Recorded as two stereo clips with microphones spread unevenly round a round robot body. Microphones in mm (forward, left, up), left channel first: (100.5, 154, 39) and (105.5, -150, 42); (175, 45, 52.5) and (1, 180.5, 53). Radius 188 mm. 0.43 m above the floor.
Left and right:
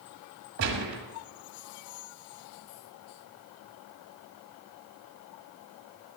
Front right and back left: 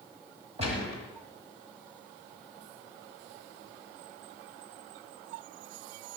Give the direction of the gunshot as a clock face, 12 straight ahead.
5 o'clock.